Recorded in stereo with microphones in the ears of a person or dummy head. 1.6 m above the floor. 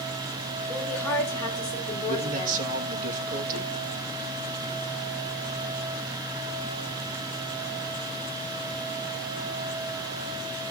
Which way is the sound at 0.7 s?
10° left (ahead or behind).